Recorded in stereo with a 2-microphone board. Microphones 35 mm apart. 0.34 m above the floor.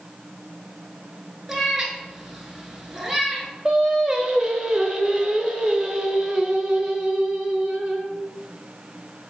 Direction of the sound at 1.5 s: 10° right (ahead or behind).